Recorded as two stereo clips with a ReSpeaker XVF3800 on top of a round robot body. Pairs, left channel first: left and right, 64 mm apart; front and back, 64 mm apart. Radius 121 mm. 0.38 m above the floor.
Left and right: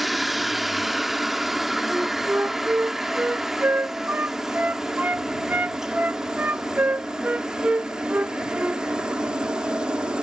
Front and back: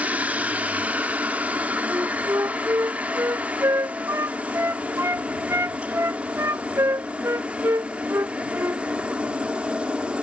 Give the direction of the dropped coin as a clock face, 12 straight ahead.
No dropped coin in this recording.